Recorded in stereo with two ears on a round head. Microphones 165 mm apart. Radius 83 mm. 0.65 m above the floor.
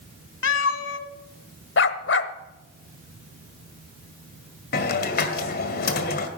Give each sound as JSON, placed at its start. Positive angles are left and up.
{"t": 0.4, "sound": "a cat meowing", "side_deg": 70, "distance_m": 1.3}
{"t": 1.8, "sound": "a dog barking", "side_deg": 65, "distance_m": 1.1}
{"t": 4.7, "sound": "a hiss", "side_deg": 55, "distance_m": 2.0}